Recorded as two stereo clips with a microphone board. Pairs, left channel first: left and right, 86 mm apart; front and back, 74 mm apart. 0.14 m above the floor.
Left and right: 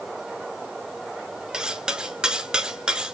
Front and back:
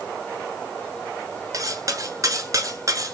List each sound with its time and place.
1.5 s cutlery clinking: 170° right, 1.1 m